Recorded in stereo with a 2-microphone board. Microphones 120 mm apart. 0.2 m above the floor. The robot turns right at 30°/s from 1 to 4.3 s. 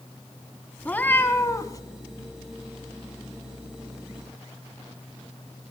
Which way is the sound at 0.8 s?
15° left (ahead or behind).